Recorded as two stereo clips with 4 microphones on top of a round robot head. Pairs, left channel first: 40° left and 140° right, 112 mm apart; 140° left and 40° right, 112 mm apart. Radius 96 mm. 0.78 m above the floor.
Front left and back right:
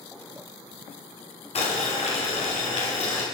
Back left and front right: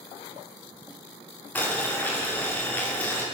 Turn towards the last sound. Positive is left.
turn(degrees=65)